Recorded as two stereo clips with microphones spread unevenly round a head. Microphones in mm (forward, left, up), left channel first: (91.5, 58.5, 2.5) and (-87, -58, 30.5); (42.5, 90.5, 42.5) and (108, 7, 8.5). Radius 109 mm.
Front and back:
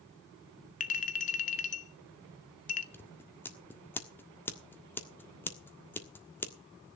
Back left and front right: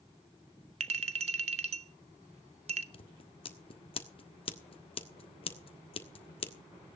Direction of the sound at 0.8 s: 25° right.